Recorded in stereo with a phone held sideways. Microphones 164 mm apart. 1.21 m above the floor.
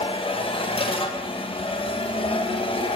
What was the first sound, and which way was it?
A machine running, 35° left (ahead or behind).